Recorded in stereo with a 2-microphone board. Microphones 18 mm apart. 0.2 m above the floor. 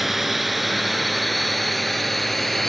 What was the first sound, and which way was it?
A drone, 5° right (ahead or behind).